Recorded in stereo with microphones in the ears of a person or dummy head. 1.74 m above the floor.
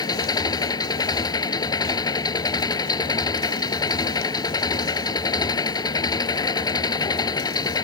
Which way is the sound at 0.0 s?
25° left (ahead or behind).